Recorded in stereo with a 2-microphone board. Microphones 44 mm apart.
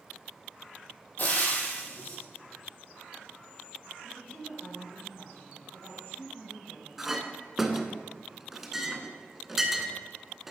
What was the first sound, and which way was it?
Frying, 40° left (ahead or behind).